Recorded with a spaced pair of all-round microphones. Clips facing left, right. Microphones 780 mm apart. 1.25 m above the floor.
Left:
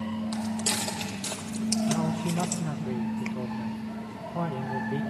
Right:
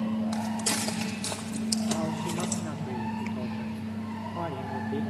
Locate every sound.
0.3 s footsteps: 55° left (ahead or behind), 2.5 m; by 2.6 s 25° left (ahead or behind), 1.3 m
1.9 s a man speaking: 80° left, 1.4 m